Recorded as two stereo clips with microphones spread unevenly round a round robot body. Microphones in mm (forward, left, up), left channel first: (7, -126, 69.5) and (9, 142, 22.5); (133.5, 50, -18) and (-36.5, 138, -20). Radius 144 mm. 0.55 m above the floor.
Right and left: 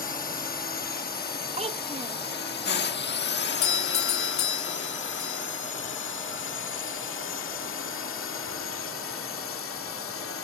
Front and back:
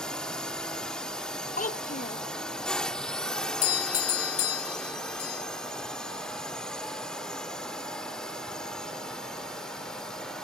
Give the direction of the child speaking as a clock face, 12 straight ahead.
11 o'clock.